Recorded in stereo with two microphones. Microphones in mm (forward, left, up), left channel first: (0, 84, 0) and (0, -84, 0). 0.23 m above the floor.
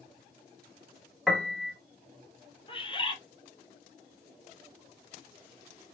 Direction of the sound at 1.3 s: Centre (ahead or behind).